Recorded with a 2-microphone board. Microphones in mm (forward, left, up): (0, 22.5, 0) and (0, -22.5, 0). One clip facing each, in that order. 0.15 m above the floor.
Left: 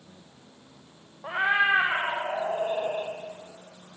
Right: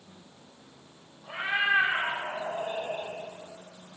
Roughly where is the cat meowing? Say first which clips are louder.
Left 4 dB; left.